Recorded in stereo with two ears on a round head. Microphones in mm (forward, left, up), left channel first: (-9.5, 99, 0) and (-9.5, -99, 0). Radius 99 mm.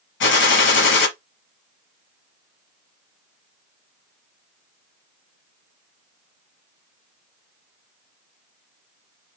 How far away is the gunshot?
About 1.1 m.